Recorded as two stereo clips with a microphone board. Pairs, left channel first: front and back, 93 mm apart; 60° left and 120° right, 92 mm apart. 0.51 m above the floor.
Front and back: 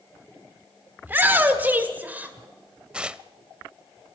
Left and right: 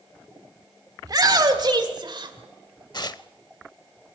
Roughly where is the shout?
Behind right.